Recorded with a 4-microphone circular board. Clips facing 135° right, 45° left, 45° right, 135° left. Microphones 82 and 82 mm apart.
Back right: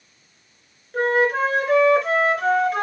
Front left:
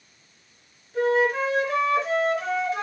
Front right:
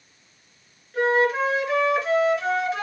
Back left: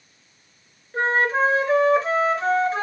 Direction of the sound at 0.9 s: 170° right.